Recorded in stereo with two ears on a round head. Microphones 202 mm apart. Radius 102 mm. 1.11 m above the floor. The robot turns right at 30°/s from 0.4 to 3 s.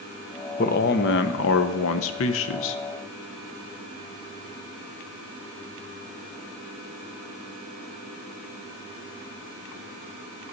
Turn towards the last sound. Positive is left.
turn(degrees=115)